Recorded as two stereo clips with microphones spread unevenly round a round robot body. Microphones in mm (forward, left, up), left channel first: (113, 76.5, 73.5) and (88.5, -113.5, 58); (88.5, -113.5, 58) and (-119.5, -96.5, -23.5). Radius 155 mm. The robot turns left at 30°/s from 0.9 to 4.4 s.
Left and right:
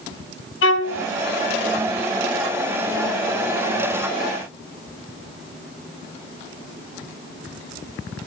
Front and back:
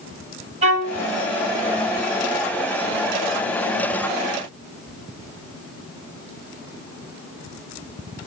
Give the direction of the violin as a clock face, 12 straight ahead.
8 o'clock.